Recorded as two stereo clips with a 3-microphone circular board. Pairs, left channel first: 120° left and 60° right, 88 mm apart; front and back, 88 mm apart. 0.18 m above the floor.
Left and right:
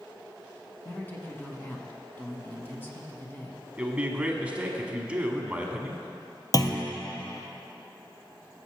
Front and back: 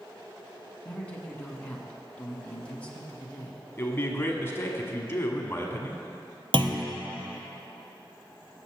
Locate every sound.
0.8 s a man speaking: 70° left, 1.3 m
3.8 s a man speaking: 5° right, 1.1 m
6.5 s a clunk: 165° left, 0.8 m